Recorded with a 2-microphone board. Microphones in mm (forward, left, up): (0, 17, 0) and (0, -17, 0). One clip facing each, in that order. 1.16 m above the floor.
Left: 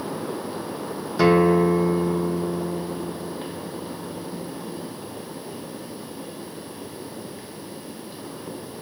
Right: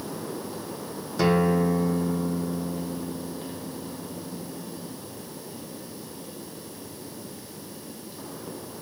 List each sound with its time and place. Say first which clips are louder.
1.2 s a guitar: left 5 dB; 15° left (ahead or behind), 1.5 m